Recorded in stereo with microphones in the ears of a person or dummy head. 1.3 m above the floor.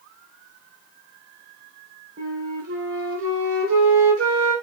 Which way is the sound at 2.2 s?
75° right (ahead or behind).